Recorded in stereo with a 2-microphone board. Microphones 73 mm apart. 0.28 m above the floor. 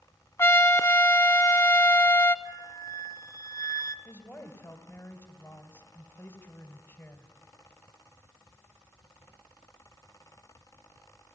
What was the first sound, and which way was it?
A trumpet, 35° left (ahead or behind).